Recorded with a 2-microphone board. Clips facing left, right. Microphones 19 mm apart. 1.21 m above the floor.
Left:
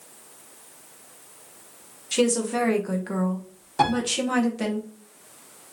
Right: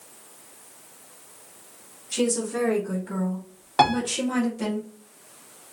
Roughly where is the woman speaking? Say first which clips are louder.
Left 3 dB; left.